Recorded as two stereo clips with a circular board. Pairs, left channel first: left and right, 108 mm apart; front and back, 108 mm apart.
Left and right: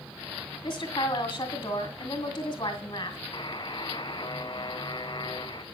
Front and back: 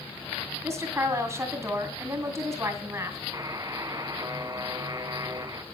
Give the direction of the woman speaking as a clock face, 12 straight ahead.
8 o'clock.